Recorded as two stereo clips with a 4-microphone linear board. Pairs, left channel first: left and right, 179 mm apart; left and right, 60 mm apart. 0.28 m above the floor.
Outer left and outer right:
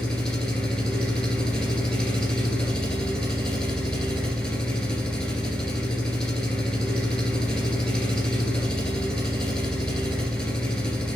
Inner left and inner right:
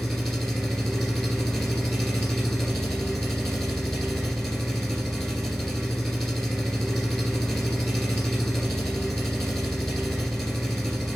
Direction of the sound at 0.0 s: 5° left (ahead or behind).